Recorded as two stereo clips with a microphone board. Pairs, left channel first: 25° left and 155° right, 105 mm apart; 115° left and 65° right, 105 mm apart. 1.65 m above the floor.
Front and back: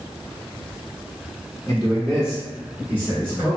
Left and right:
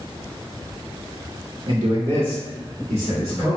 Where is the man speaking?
50° right, 0.8 m; by 3.6 s 100° right, 2.5 m.